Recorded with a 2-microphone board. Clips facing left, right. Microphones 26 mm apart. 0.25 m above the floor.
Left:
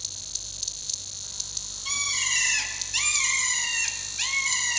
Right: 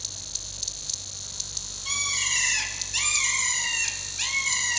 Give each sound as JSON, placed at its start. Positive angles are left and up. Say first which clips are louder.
{"t": 1.9, "sound": "a bird", "louder": "even", "side_deg": 10, "distance_m": 1.7}